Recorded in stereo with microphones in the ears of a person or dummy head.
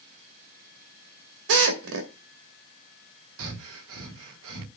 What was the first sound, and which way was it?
A drill, 75° right (ahead or behind).